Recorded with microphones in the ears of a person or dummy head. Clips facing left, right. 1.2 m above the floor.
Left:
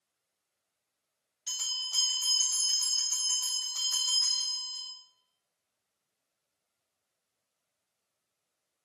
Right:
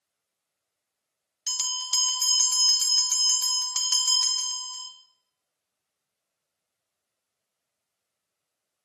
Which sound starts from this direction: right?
A bell, at 1.5 s.